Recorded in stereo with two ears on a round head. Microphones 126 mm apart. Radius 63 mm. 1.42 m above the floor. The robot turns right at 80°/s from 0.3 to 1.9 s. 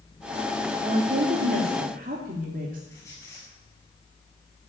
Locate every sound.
0.8 s a woman speaking: 145° right, 2.5 m; by 2.8 s 60° right, 2.5 m
2.9 s a squeak: 20° left (ahead or behind), 7 m